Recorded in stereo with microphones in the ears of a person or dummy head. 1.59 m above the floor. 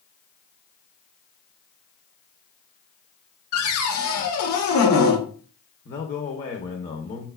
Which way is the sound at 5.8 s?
30° left (ahead or behind).